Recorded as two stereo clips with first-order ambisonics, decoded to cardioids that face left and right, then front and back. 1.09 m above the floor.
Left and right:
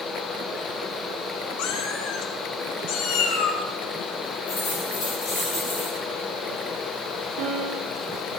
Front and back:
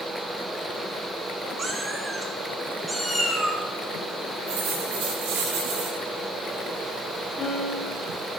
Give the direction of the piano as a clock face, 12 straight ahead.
3 o'clock.